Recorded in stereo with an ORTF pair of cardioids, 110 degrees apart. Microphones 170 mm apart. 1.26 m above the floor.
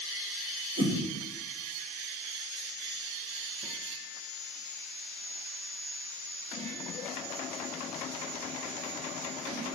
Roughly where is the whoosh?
Ahead right.